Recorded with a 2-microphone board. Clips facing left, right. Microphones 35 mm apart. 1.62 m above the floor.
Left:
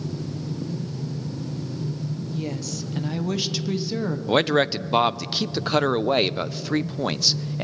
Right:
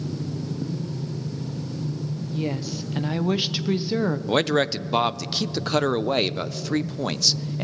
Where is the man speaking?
10° left (ahead or behind), 0.6 m.